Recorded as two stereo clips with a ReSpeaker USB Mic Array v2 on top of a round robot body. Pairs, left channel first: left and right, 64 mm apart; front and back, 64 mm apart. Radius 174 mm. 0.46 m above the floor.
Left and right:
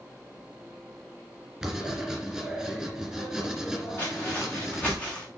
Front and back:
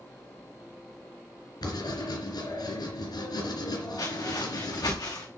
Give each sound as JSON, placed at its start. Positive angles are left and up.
{"t": 1.6, "sound": "writing", "azimuth_deg": -5, "distance_m": 3.5}
{"t": 4.0, "sound": "footsteps", "azimuth_deg": 25, "distance_m": 4.0}